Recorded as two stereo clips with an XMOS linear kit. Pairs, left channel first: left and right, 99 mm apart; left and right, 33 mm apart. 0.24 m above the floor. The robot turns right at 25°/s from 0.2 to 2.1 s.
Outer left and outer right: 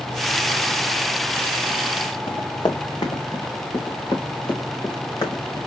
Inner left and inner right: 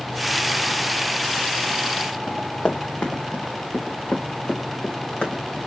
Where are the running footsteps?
60° left (ahead or behind), 2 m; by 5.6 s 40° left (ahead or behind), 4 m.